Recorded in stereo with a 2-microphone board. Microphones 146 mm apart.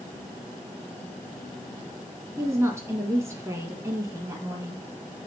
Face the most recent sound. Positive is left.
turn(degrees=-20)  # may be behind; listen again after turning